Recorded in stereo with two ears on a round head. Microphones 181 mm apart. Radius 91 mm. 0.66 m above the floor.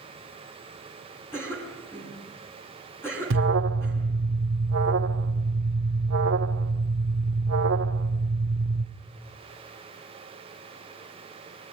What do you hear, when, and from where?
1.3 s a cough: 10° left (ahead or behind), 7 m
3.3 s an alarm: 70° right (ahead or behind), 1.1 m